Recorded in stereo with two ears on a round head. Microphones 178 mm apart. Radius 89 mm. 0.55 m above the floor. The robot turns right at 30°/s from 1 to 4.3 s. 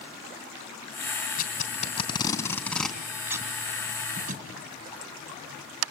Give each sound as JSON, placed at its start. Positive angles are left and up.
{"t": 1.4, "sound": "tape being pulled", "side_deg": 50, "distance_m": 3.0}